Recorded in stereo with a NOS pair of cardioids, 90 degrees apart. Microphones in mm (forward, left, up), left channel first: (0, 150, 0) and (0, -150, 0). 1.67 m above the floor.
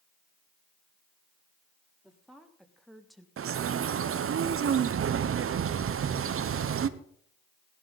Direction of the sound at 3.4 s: 45° right.